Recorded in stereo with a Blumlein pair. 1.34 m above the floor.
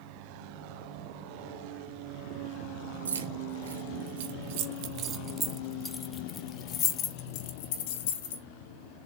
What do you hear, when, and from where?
3.0 s keys jangling: 70° right, 2 m; by 8.4 s 55° left, 2.5 m